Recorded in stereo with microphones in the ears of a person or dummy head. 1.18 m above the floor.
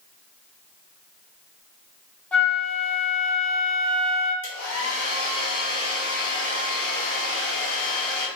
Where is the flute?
5° left (ahead or behind), 0.7 m.